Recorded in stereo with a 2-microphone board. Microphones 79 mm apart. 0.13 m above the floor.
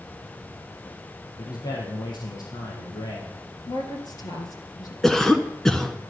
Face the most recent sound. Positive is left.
turn(degrees=5)  # may be behind; listen again after turning